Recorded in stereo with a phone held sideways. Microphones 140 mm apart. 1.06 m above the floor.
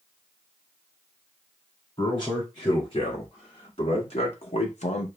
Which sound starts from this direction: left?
A man speaking, at 2.0 s.